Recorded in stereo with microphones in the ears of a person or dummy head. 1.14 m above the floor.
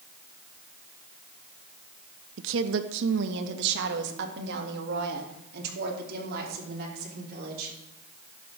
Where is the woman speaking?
65° right (ahead or behind), 0.9 m.